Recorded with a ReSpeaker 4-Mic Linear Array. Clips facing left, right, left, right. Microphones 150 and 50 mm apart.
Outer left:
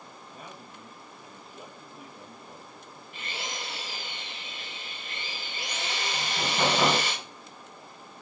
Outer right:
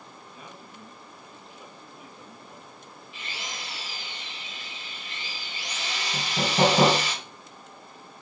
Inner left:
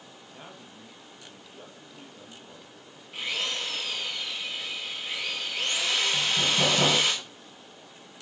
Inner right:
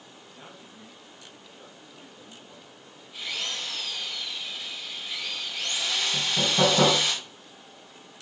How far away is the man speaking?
About 3 m.